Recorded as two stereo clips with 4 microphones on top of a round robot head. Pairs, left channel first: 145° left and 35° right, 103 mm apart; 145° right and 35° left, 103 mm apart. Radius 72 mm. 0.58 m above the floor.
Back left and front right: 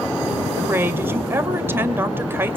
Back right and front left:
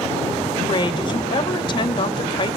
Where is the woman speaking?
105° right, 2 m.